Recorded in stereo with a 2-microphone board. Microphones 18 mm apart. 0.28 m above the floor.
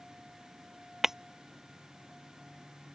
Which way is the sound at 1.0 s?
20° right (ahead or behind).